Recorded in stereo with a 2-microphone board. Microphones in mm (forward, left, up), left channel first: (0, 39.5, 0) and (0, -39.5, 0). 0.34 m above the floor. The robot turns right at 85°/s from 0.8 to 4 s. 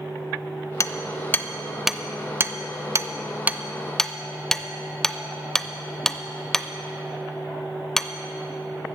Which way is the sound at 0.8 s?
40° left (ahead or behind).